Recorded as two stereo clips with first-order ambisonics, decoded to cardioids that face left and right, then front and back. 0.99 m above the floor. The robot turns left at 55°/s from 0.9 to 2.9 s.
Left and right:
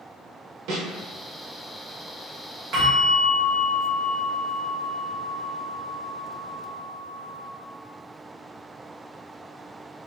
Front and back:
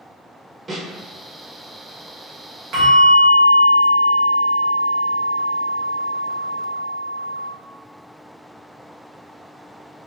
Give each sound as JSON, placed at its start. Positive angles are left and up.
{"t": 0.7, "sound": "a snare drum", "azimuth_deg": -105, "distance_m": 0.9}
{"t": 2.7, "sound": "a bell", "azimuth_deg": -130, "distance_m": 1.2}